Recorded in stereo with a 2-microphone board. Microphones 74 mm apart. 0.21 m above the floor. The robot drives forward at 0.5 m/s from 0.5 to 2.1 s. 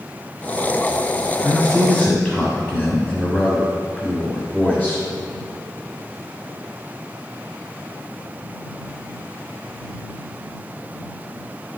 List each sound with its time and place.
1.4 s a man speaking: 20° left (ahead or behind), 1.2 m